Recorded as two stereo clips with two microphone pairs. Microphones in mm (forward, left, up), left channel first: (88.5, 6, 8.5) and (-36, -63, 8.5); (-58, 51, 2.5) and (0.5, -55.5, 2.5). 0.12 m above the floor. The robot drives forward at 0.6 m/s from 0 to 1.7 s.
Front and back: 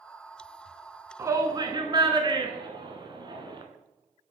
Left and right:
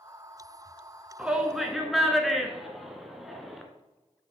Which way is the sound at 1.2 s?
125° right.